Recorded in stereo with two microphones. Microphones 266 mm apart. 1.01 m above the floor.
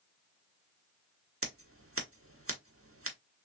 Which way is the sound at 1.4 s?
55° right (ahead or behind).